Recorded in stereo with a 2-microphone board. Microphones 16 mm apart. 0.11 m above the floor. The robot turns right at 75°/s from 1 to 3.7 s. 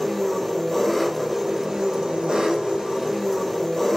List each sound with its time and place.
0.0 s an engine running: straight behind, 2.5 m; by 4.0 s 20° left, 2.5 m